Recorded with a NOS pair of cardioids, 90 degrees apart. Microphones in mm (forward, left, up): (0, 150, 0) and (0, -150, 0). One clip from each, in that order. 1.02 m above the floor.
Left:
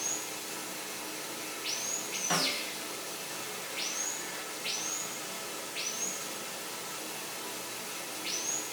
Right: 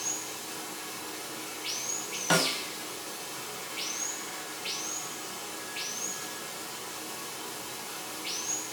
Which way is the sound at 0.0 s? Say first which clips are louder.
Right 1 dB; 5° left.